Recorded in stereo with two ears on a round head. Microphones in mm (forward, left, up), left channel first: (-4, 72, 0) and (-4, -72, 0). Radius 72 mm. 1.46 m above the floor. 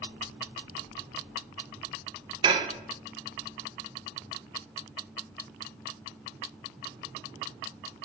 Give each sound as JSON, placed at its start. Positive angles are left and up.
{"t": 2.4, "sound": "dishes clattering", "side_deg": -30, "distance_m": 0.6}